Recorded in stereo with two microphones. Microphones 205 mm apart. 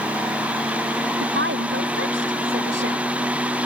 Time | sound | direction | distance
1.2 | a woman speaking | 75° right (ahead or behind) | ?